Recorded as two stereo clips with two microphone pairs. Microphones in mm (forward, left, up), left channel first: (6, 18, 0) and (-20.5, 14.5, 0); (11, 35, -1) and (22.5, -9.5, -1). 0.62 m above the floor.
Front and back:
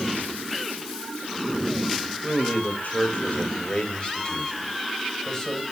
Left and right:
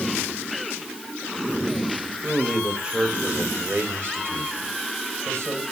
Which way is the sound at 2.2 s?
5° left.